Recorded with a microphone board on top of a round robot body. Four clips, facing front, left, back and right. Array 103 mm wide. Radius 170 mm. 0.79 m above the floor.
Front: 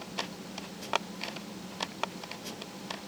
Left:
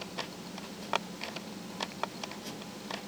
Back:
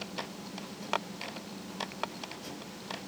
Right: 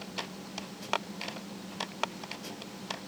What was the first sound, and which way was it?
Only background noise.